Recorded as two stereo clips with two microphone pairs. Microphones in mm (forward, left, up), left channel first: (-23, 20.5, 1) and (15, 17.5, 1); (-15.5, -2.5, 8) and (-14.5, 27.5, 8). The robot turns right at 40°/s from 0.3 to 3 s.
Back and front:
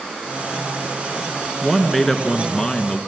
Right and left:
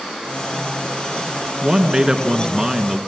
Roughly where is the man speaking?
Left.